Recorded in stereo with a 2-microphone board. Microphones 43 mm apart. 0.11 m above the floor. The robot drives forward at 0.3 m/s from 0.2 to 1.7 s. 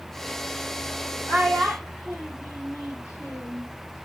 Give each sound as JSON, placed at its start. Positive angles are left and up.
{"t": 1.3, "sound": "a child speaking", "side_deg": -30, "distance_m": 3.5}